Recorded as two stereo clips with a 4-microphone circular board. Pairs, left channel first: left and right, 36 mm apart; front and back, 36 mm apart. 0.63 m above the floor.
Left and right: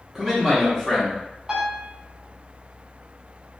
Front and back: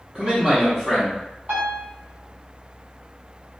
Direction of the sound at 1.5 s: 155° right.